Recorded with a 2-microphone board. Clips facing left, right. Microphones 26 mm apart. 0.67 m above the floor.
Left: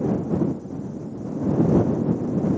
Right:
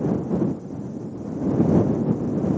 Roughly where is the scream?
No scream in this recording.